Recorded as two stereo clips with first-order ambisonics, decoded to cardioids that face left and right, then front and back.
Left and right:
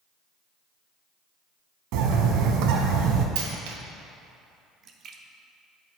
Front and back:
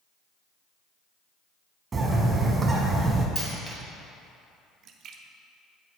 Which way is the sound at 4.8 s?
140° right.